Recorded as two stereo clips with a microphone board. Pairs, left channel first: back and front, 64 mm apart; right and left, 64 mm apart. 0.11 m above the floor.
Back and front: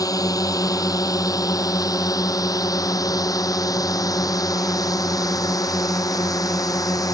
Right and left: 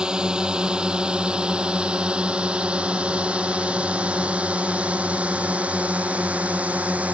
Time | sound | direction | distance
0.0 | a drone | 165° left | ?